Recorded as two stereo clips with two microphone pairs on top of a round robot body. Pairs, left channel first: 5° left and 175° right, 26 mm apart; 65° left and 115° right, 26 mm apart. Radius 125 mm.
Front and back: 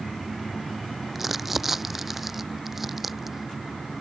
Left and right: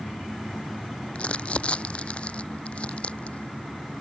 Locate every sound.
1.1 s crumpling: 105° left